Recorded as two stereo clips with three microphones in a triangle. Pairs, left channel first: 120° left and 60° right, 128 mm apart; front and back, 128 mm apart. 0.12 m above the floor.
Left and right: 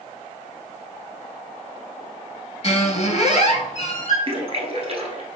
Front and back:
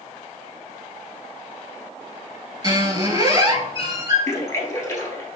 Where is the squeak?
130° left, 0.9 m.